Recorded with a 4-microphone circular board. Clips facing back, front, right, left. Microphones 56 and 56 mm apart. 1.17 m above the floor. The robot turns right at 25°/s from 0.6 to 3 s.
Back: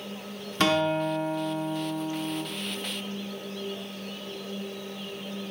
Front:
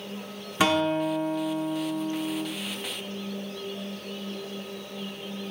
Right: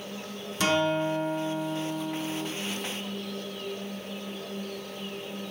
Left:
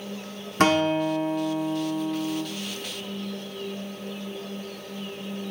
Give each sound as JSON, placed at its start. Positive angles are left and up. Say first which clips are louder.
{"t": 0.6, "sound": "a guitar", "louder": "front 1 dB, left 4 dB", "azimuth_deg": 80, "distance_m": 0.7}